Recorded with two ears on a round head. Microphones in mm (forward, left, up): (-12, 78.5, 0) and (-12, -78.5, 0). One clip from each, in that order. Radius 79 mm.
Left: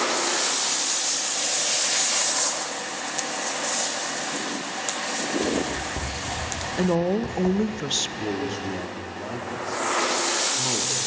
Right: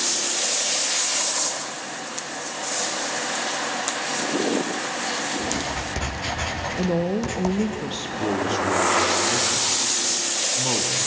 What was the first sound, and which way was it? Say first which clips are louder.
Writing: left 1 dB; 50° right (ahead or behind).